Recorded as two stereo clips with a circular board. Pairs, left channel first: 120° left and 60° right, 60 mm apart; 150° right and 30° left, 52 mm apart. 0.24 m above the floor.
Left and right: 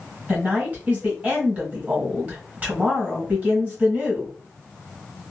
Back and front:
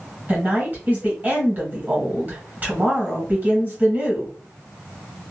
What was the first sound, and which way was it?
A woman speaking, 5° right.